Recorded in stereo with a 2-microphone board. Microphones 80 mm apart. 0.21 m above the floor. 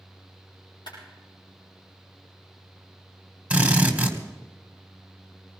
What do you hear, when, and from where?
0.9 s a clap: 80° left, 6 m
3.5 s a drill: 15° right (ahead or behind), 1.7 m